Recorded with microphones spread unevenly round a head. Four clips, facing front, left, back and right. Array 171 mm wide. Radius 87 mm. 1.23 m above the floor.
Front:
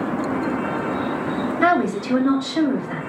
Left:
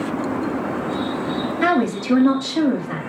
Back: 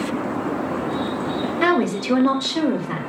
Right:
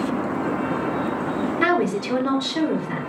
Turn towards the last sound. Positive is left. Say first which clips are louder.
# left 3 dB, front 1 dB
turn(degrees=-155)